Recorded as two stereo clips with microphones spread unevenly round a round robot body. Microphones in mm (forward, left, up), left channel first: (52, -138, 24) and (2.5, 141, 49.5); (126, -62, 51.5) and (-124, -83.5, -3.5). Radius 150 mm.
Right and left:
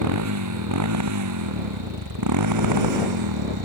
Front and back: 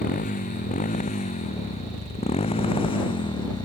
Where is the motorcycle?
70° left; by 3.7 s 80° left.